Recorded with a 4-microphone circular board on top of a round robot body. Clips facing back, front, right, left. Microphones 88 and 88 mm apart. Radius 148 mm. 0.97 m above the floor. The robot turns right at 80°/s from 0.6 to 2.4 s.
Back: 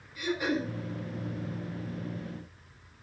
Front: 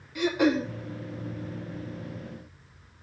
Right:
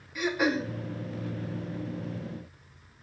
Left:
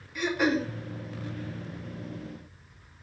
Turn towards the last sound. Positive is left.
turn(degrees=140)